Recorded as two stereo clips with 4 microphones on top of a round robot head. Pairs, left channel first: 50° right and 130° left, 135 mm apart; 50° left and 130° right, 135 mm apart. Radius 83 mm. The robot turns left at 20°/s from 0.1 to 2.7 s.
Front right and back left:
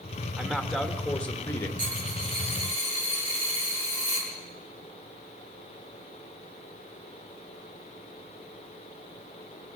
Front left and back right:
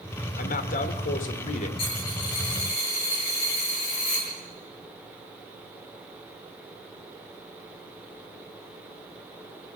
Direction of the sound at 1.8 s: 100° left.